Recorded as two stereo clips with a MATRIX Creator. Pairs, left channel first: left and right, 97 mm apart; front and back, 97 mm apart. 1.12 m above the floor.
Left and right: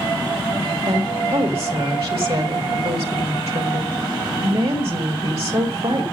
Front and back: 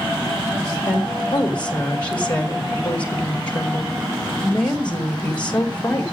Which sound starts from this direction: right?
A woman speaking, at 0.9 s.